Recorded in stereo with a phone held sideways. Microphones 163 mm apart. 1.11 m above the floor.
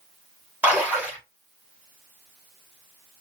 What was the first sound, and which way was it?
A splash, 10° right (ahead or behind).